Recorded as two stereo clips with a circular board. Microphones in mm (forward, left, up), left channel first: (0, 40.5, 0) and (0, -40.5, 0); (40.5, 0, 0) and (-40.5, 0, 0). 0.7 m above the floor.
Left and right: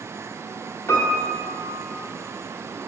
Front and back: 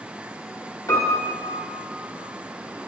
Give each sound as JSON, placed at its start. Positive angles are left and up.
{"t": 0.9, "sound": "a piano", "azimuth_deg": 35, "distance_m": 1.7}